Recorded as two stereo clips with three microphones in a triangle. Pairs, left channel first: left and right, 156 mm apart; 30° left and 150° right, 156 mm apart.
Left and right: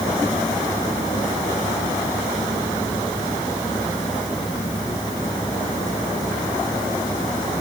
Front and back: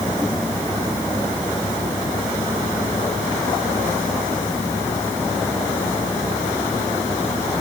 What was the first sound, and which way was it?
Only background noise.